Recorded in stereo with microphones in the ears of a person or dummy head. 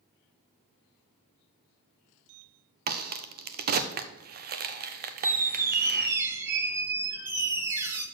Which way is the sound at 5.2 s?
15° right (ahead or behind).